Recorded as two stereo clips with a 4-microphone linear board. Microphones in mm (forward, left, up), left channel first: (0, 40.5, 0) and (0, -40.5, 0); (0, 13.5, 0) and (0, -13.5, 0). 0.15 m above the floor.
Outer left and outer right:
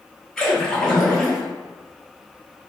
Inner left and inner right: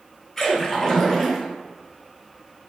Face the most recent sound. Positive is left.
turn(degrees=10)  # may be behind; listen again after turning